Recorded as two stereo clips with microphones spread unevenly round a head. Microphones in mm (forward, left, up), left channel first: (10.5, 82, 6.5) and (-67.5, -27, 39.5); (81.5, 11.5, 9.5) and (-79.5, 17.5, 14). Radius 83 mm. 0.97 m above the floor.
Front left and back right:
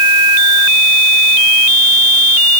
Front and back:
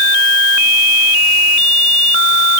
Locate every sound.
Only background noise.